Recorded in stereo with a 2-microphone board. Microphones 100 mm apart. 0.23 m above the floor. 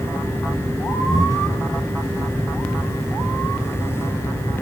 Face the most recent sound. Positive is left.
turn(degrees=-40)  # may be behind; listen again after turning